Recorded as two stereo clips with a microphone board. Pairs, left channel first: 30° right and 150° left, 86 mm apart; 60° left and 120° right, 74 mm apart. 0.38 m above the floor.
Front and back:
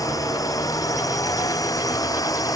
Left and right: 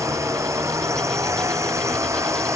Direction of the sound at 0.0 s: 75° right.